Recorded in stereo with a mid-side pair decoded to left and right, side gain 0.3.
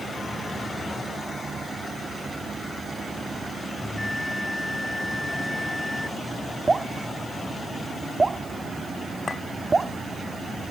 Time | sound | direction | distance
3.8 | a bell | 25° left | ?
6.7 | dripping | 30° right | ?
9.3 | a clink | 45° left | ?